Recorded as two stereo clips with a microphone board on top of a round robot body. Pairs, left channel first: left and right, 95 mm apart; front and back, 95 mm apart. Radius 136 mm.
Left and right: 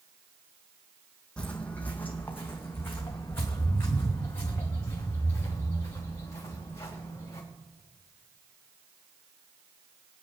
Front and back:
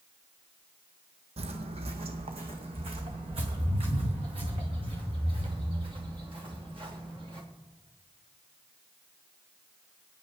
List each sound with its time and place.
1.4 s footsteps: 170° left, 1.0 m; by 7.4 s 150° left, 4 m